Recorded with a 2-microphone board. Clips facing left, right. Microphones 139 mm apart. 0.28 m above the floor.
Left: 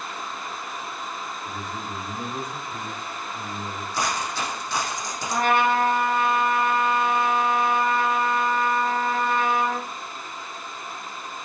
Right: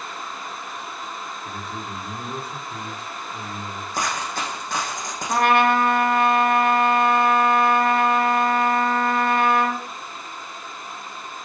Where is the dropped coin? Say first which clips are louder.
Even; 50° right (ahead or behind), 6.5 m.